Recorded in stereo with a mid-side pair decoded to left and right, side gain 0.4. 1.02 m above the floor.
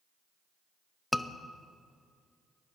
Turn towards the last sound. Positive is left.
turn(degrees=15)